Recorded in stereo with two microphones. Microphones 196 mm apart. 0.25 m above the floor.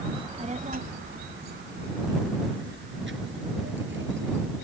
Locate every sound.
0.1 s a child speaking: 25° right (ahead or behind); by 4.6 s 75° right (ahead or behind)